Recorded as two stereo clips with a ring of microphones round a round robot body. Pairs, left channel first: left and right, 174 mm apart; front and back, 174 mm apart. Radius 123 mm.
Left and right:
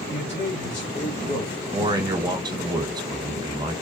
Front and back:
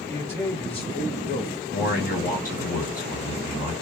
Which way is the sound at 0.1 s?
75° left.